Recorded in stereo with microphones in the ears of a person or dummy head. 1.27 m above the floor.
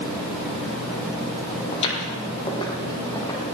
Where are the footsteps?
40° left (ahead or behind), 3.5 m; by 3.5 s 25° left (ahead or behind), 5.5 m.